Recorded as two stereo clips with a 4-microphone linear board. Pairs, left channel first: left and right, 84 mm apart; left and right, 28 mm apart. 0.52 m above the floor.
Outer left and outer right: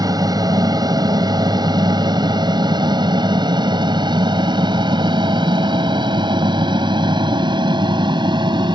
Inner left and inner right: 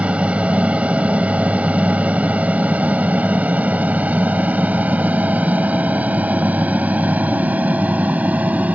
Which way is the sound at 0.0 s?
50° right (ahead or behind).